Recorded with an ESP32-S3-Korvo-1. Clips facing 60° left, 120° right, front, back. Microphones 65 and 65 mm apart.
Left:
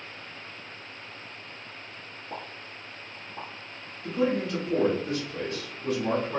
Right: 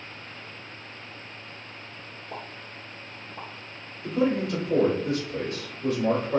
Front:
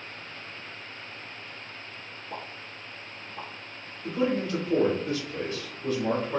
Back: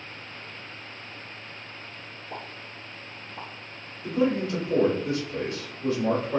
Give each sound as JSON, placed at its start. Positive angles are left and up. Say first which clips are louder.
{"t": 2.3, "sound": "a pop", "louder": "even, even", "azimuth_deg": 90, "distance_m": 1.1}
{"t": 4.0, "sound": "a man speaking", "louder": "right 2 dB, back 2 dB", "azimuth_deg": -120, "distance_m": 1.2}